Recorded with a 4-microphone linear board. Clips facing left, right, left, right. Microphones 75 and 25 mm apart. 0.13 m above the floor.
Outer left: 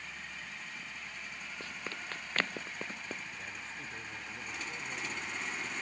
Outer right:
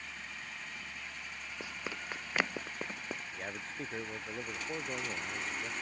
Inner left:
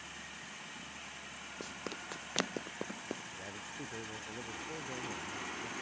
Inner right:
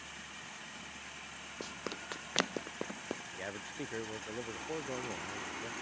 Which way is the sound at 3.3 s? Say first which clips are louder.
Outer right 3 dB, inner right 3 dB; 50° right (ahead or behind).